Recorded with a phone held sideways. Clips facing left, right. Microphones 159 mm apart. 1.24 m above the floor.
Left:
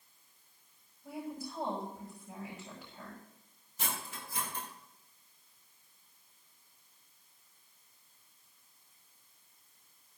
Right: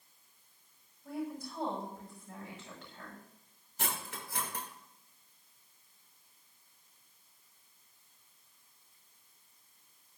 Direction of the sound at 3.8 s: 80° right.